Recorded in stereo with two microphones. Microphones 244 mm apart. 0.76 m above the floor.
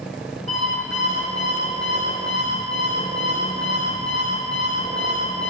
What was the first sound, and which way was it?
An alarm clock, 75° right (ahead or behind).